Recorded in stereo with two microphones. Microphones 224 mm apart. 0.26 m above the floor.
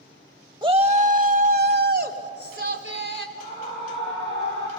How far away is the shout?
About 0.9 m.